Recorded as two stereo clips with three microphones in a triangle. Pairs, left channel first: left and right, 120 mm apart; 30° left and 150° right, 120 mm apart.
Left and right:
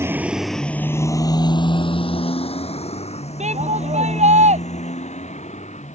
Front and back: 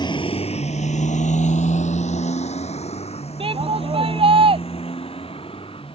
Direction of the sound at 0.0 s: 25° right.